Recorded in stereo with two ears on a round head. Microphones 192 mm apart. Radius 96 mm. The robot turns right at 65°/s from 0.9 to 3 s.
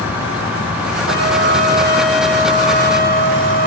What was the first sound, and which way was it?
A trumpet, 70° right.